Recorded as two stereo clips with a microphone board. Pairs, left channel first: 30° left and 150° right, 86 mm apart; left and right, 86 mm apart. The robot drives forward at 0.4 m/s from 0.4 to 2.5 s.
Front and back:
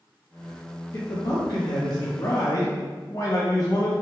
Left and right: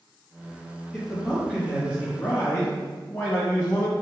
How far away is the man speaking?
About 1.2 m.